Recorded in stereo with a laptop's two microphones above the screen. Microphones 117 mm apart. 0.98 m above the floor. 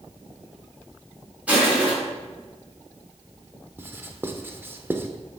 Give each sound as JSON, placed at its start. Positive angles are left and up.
{"t": 1.5, "sound": "crushing", "side_deg": -10, "distance_m": 3.5}
{"t": 3.8, "sound": "writing", "side_deg": -20, "distance_m": 0.6}